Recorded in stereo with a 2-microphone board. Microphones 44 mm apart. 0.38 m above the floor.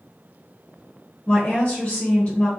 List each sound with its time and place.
1.3 s a woman speaking: 30° left (ahead or behind), 1.1 m